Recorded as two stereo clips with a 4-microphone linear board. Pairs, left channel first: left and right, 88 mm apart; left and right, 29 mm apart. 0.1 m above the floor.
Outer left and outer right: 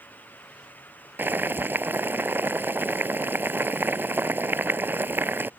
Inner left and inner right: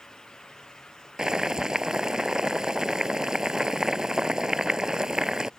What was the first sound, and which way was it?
Boiling, 25° right (ahead or behind).